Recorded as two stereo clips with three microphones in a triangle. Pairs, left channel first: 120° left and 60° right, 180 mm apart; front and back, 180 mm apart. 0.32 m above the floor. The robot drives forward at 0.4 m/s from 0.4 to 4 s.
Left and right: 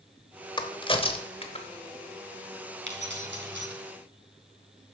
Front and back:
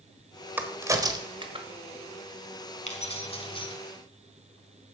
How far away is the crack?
About 1.1 m.